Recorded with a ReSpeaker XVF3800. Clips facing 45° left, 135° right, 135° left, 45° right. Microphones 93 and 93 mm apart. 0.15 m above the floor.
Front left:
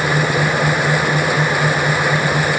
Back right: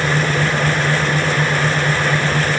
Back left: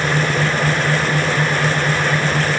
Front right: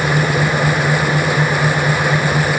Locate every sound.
Only background noise.